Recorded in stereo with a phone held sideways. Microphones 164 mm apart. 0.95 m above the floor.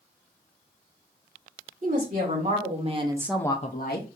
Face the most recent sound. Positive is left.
turn(degrees=70)  # may be behind; listen again after turning